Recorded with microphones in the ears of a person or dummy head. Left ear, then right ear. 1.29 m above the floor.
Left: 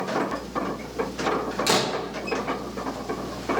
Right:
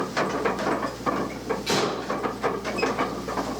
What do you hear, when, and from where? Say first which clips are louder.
1.7 s a door slam: left 1 dB; 55° left (ahead or behind), 1.5 m